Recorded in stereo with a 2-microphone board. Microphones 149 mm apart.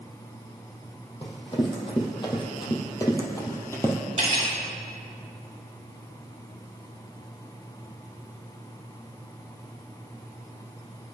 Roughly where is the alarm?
No alarm in this recording.